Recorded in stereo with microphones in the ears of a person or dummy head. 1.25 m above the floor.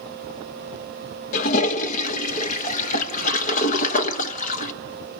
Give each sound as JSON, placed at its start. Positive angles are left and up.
{"t": 1.3, "sound": "a toilet flushing", "side_deg": 45, "distance_m": 1.1}